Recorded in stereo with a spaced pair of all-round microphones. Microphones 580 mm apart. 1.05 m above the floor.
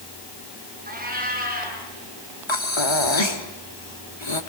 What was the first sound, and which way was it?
A cat meowing, 15° right (ahead or behind).